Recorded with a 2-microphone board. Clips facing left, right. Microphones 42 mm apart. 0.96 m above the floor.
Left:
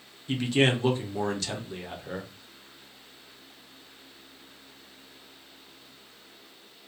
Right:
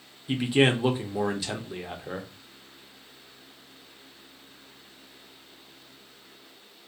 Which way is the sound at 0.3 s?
15° right (ahead or behind).